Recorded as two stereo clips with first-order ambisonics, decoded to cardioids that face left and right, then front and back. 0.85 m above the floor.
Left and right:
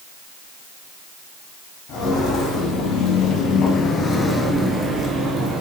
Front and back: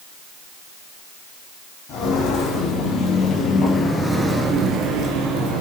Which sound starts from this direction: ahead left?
Footsteps, at 1.9 s.